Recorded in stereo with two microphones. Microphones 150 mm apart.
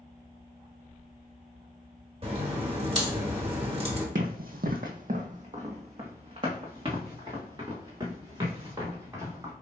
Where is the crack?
35° right (ahead or behind), 1.6 m.